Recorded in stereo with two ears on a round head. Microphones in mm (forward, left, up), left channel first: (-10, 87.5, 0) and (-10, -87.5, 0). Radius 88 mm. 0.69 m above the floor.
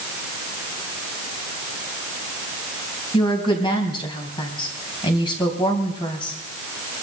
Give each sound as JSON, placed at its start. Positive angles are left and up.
{"t": 3.1, "sound": "a woman speaking", "side_deg": 25, "distance_m": 3.5}